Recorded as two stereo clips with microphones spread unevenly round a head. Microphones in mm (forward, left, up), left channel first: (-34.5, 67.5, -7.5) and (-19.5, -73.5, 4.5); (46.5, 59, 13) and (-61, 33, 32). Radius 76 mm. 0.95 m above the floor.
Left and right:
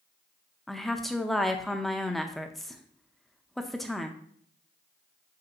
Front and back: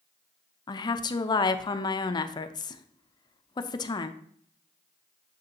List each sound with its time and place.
0.7 s a woman speaking: 15° left, 0.6 m